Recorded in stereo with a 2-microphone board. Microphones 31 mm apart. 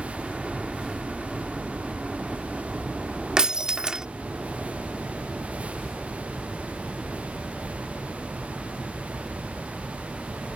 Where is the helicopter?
20° right (ahead or behind); by 10.6 s 30° right (ahead or behind).